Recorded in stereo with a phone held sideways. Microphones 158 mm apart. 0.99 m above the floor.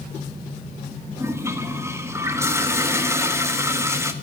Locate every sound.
1.1 s a toilet flushing: 15° right (ahead or behind), 1.5 m